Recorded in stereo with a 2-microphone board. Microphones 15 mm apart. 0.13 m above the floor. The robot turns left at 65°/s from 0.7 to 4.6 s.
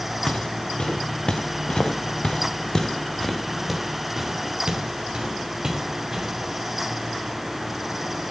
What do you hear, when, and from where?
0.3 s footsteps: 70° left (ahead or behind), 1.5 m; by 6.3 s 40° right (ahead or behind), 3.5 m